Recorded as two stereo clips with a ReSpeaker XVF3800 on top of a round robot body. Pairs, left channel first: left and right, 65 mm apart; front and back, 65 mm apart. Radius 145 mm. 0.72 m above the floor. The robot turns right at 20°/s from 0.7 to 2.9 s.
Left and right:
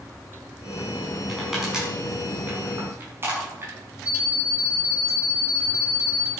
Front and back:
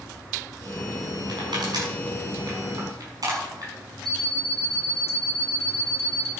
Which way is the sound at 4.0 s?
165° right.